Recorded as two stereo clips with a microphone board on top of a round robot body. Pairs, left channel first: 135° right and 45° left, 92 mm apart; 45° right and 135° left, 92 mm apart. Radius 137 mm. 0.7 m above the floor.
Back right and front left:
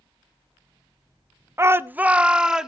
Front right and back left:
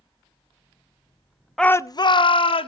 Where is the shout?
35° left, 0.7 m; by 2.7 s 40° right, 1.8 m.